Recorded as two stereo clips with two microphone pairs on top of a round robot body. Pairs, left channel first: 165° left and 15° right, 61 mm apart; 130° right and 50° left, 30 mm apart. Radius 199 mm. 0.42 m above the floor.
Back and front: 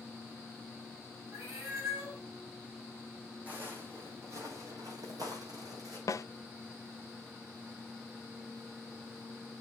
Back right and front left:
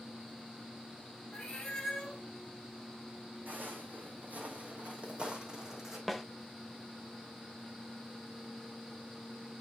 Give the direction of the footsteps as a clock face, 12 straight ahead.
10 o'clock.